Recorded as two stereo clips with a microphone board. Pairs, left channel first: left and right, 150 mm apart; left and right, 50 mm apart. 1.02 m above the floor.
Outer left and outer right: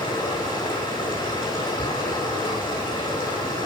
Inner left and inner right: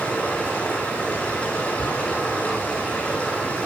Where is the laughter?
No laughter in this recording.